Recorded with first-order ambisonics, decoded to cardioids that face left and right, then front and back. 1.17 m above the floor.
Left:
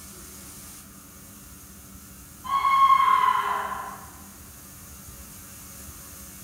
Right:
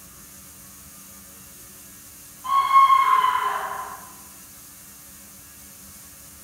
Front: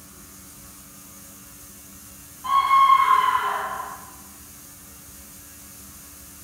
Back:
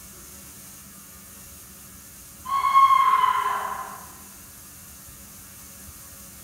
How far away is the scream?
About 2.5 m.